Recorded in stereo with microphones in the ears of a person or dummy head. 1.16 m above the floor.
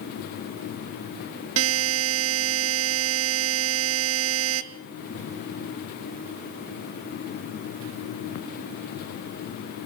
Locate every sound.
1.6 s a buzzer: 75° right (ahead or behind), 1.5 m